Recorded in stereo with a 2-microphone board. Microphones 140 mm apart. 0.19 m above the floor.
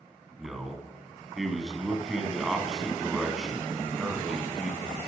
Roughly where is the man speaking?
Centre.